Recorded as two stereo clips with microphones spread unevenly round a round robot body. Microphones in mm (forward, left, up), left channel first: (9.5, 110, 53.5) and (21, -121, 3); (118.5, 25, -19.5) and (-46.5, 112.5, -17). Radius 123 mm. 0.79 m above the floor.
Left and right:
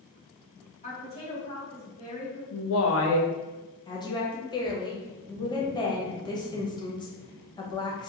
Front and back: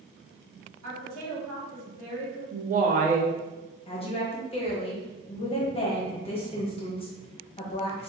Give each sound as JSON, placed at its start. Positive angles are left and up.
{"t": 0.8, "sound": "a woman speaking", "azimuth_deg": 160, "distance_m": 1.4}
{"t": 2.5, "sound": "a woman speaking", "azimuth_deg": 120, "distance_m": 0.5}
{"t": 3.9, "sound": "a woman speaking", "azimuth_deg": 15, "distance_m": 0.8}